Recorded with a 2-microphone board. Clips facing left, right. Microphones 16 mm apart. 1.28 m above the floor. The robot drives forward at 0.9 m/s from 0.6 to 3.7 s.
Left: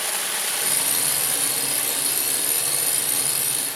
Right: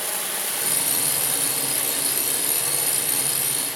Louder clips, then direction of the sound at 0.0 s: Left 2 dB; 20° left (ahead or behind).